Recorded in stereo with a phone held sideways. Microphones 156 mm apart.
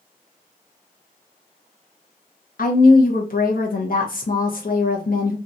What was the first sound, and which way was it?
A woman speaking, 65° left (ahead or behind).